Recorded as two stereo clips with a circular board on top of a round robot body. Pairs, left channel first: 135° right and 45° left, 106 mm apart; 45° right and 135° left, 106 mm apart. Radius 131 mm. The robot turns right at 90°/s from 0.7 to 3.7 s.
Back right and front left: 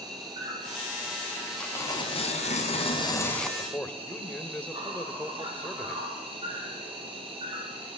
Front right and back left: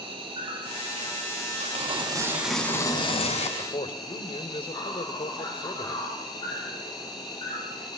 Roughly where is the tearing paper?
Behind left.